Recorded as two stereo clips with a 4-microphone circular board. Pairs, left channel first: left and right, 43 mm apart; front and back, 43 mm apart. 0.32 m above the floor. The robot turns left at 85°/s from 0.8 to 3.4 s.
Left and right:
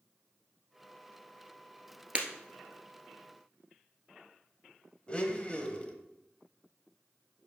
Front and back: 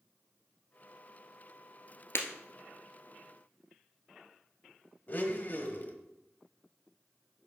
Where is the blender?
35° left, 1.0 m.